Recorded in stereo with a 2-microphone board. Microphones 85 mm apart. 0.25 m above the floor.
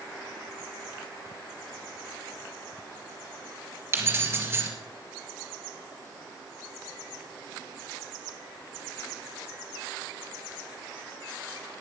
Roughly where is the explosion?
I don't hear an explosion.